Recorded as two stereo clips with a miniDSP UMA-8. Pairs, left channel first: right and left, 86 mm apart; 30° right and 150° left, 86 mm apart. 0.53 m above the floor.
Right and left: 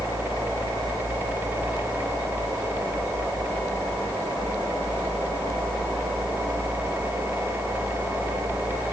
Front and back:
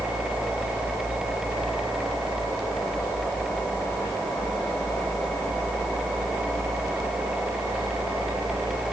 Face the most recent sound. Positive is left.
No sound to turn to.